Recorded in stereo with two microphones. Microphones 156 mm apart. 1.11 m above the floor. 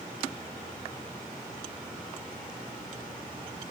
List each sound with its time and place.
Only background noise.